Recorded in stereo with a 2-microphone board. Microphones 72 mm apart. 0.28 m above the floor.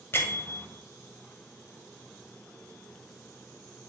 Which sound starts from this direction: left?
A bell, at 0.1 s.